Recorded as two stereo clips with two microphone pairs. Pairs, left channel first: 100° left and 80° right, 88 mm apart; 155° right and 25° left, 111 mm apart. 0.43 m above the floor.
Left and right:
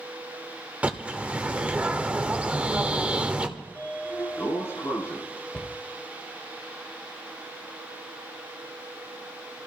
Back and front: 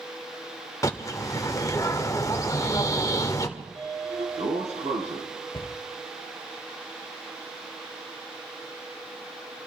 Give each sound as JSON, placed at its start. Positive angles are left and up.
{"t": 0.8, "sound": "a bird", "azimuth_deg": -140, "distance_m": 1.2}
{"t": 3.6, "sound": "a sliding door", "azimuth_deg": 40, "distance_m": 4.0}
{"t": 5.5, "sound": "a cupboard door", "azimuth_deg": 180, "distance_m": 1.1}